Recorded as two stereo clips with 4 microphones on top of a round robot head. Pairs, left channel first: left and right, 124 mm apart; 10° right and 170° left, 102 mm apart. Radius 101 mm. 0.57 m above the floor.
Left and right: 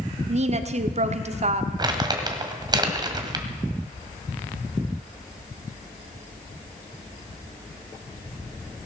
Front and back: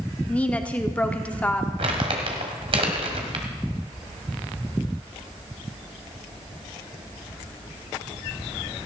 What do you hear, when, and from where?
0.3 s a woman speaking: 85° right, 1.2 m
1.8 s crumpling: 145° right, 1.7 m